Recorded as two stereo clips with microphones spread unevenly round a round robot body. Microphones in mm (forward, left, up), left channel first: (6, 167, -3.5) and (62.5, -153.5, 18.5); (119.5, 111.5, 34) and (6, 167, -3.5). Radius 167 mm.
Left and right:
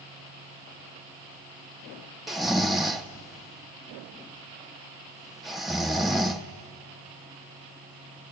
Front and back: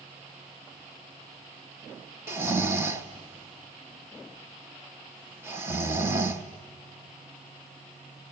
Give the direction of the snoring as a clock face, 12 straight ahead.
6 o'clock.